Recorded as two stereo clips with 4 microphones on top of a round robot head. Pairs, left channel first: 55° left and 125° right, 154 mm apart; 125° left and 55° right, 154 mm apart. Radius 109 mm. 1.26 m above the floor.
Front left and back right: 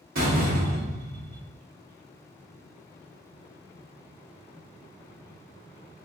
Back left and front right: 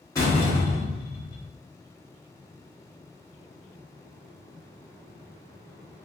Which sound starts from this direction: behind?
A door slam, at 0.1 s.